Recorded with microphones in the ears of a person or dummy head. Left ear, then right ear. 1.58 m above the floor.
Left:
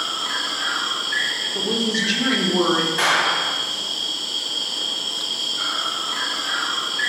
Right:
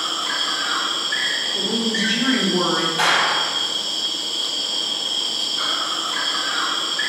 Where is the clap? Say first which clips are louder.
Right 3 dB; 65° left (ahead or behind), 2.0 m.